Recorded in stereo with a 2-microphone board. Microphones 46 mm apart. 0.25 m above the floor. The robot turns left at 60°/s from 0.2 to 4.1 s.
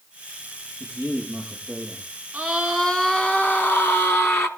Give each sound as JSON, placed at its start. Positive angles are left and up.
{"t": 0.8, "sound": "a man speaking", "azimuth_deg": -125, "distance_m": 7.0}
{"t": 2.3, "sound": "a scream", "azimuth_deg": -155, "distance_m": 3.0}